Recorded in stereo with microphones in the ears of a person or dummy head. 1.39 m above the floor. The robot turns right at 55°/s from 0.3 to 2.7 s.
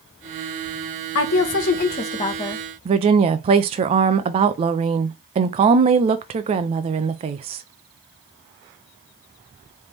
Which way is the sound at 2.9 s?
30° right (ahead or behind).